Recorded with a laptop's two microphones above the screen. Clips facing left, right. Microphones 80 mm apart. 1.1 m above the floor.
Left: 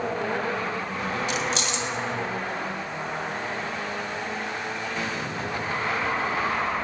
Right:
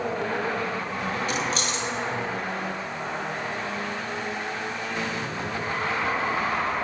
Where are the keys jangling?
45° right (ahead or behind), 1.2 m.